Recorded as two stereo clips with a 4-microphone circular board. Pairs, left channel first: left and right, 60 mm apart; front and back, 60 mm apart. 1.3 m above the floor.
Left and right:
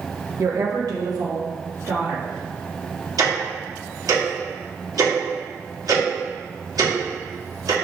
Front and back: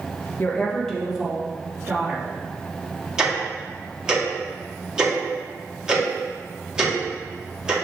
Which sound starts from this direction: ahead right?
A woman speaking, at 0.4 s.